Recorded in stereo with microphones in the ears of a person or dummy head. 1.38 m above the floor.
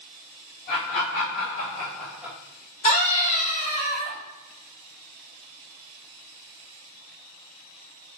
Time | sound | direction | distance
0.7 | laughter | 55° left (ahead or behind) | 2 m
2.8 | a scream | 35° left (ahead or behind) | 2.5 m